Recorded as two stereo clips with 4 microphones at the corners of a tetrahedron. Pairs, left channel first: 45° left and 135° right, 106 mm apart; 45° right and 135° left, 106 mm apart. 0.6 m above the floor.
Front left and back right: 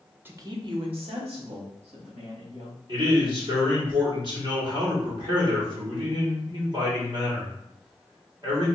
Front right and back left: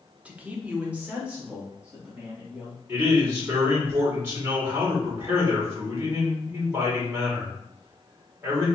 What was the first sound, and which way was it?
A man speaking, 170° right.